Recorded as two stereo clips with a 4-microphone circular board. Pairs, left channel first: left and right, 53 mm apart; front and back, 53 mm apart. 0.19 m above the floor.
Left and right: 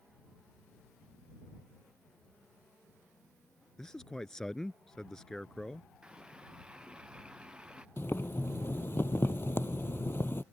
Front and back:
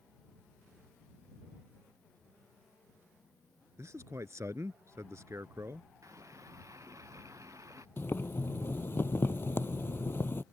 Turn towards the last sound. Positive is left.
turn(degrees=45)